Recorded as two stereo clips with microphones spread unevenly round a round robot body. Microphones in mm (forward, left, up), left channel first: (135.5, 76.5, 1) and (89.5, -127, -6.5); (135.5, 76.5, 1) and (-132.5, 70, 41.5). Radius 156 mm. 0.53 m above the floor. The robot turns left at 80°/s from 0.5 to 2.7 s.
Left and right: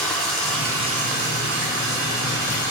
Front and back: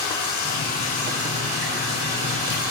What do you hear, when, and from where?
0.0 s running water: 10° right, 2.0 m; by 2.7 s 175° left, 2.0 m